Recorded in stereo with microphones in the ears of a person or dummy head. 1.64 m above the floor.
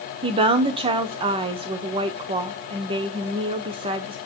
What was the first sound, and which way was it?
A woman speaking, 30° right (ahead or behind).